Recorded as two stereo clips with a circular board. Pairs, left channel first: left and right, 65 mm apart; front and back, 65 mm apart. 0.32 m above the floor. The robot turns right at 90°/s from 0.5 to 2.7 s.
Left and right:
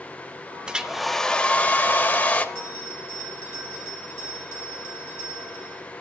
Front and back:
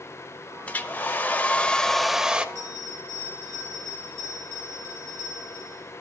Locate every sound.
0.7 s a hair dryer: 35° right, 0.6 m; by 2.5 s 125° left, 0.6 m
2.5 s a bell: 140° right, 3.5 m; by 5.8 s 125° right, 3.5 m